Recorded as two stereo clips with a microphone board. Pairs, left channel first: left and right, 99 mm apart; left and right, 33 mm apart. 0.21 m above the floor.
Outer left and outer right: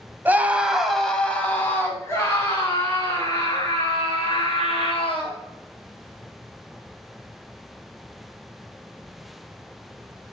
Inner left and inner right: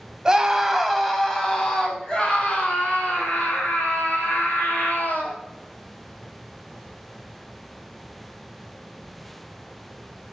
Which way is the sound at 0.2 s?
20° right (ahead or behind).